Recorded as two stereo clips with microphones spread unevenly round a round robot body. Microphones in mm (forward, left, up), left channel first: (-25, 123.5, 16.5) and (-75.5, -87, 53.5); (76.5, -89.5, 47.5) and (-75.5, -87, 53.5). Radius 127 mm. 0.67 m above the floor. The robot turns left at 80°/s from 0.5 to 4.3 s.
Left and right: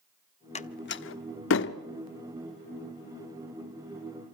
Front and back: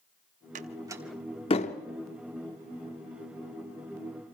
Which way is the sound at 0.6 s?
135° left.